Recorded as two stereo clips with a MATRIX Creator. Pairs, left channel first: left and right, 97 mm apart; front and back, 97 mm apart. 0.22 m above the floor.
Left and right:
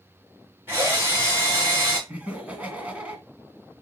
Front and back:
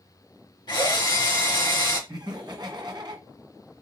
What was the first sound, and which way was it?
A drill, 25° right.